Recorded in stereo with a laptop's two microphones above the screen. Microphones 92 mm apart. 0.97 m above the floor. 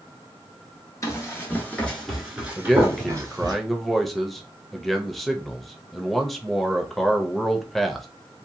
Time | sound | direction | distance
1.0 | running footsteps | 35° left (ahead or behind) | 1.1 m
2.6 | a man speaking | centre (ahead or behind) | 0.6 m